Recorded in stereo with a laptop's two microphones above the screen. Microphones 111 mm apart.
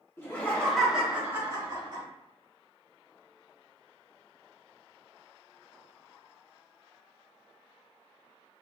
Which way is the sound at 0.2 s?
20° left (ahead or behind).